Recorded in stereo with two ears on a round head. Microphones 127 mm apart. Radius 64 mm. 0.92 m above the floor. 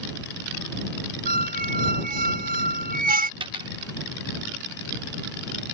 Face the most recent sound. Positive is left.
turn(degrees=-35)  # may be behind; listen again after turning